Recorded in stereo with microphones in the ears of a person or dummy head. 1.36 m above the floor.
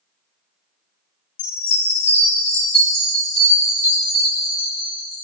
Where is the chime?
75° left (ahead or behind), 4.5 m.